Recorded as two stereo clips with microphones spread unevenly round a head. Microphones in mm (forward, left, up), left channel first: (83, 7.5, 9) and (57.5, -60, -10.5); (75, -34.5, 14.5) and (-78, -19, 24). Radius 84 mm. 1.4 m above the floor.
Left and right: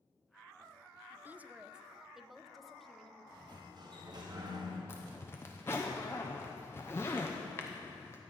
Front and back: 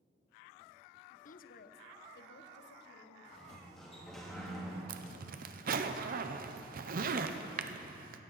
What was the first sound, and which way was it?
A woman speaking, 50° right.